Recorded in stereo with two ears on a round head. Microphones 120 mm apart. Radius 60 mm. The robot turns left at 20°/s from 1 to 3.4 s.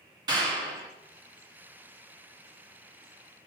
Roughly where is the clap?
Right.